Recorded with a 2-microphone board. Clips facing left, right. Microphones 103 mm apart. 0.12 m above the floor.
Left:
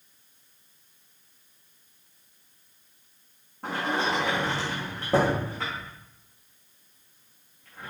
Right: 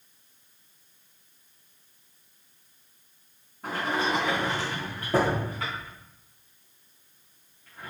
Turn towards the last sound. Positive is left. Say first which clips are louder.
# even
turn(degrees=80)